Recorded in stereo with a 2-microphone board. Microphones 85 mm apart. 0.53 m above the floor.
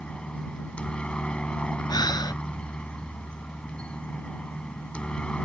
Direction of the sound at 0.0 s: 15° left (ahead or behind).